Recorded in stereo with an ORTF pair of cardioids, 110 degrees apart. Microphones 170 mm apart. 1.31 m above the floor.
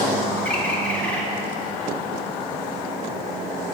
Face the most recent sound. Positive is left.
turn(degrees=10)